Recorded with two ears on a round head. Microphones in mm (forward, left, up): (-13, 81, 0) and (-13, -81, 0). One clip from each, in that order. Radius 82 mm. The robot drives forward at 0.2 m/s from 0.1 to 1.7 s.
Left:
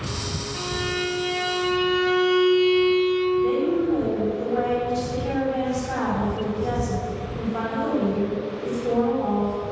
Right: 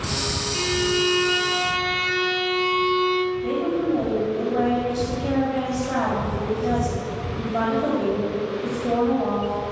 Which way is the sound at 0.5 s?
70° right (ahead or behind).